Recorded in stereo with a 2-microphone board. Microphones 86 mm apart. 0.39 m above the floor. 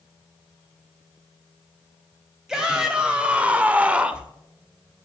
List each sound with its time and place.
2.5 s a shout: 10° right (ahead or behind), 1.9 m